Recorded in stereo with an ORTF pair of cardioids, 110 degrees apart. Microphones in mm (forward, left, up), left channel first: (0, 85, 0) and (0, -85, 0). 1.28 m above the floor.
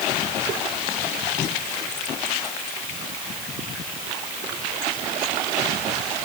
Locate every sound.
Only background noise.